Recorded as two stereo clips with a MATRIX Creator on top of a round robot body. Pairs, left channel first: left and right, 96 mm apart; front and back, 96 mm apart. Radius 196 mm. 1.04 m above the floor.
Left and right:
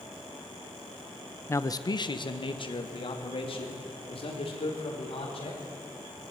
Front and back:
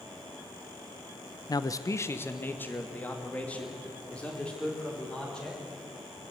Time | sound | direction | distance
1.5 | a man speaking | 30° left | 1.0 m